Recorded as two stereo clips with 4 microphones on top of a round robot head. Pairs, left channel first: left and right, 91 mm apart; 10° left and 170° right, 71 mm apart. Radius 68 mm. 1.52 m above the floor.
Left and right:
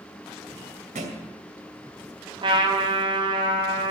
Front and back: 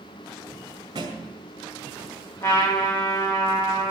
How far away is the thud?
About 2.5 m.